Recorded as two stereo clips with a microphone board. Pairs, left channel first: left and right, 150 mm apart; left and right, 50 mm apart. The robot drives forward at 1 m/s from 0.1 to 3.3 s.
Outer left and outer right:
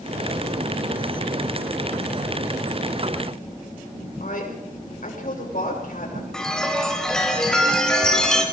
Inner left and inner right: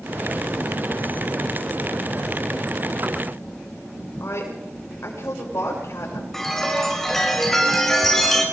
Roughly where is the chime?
Centre.